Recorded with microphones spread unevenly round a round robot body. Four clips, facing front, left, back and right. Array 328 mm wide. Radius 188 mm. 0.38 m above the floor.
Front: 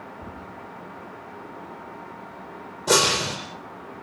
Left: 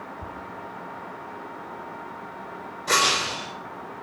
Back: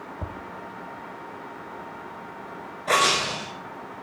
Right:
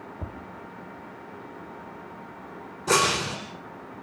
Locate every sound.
0.2 s tapping: 150° right, 2.5 m
2.9 s breaking glass: 45° right, 4.5 m